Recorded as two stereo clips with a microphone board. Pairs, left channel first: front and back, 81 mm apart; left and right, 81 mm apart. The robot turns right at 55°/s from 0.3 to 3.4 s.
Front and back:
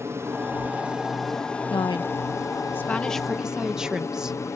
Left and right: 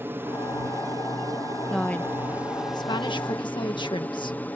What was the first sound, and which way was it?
An aircraft, 140° right.